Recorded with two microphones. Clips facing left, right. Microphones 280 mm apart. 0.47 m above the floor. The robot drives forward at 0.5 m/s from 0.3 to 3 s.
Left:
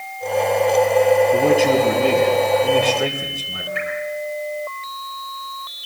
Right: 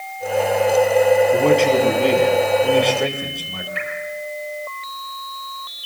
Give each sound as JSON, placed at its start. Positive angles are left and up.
{"t": 1.3, "sound": "a man speaking", "side_deg": 5, "distance_m": 4.5}
{"t": 3.8, "sound": "dripping", "side_deg": 60, "distance_m": 7.5}